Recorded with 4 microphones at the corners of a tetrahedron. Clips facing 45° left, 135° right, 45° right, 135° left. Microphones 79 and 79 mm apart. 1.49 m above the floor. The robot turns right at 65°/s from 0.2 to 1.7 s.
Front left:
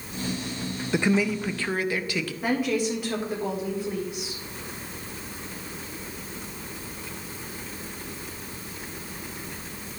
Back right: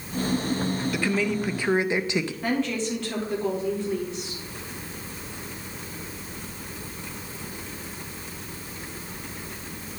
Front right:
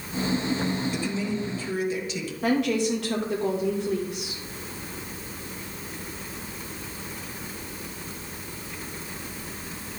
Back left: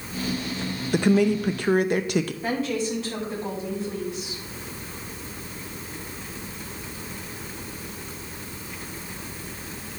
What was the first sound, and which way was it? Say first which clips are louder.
A woman speaking: front left 5 dB, back left 8 dB; 105° left.